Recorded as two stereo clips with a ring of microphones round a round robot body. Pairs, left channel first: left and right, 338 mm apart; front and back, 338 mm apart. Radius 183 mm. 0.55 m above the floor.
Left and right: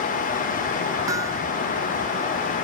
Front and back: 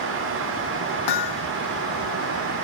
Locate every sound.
1.1 s hammering: 10° right